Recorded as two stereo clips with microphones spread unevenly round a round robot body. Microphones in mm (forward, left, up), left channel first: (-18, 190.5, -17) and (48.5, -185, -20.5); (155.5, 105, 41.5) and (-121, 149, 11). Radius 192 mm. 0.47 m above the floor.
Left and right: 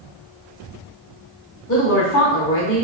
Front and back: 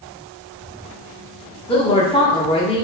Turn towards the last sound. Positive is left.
turn(degrees=60)